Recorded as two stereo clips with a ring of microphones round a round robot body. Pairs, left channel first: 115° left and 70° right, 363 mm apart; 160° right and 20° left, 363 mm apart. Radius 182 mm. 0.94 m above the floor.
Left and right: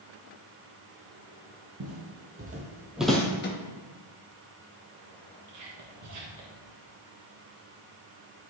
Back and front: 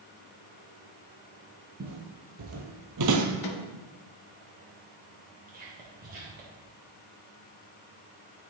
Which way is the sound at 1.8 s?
35° right.